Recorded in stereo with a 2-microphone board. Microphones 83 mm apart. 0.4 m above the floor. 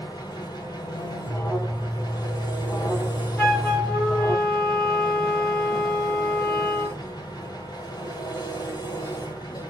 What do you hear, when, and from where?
0.0 s an engine running: 55° left (ahead or behind), 1.2 m
1.3 s an alarm: 35° left (ahead or behind), 2 m
3.4 s a flute: 10° left (ahead or behind), 0.9 m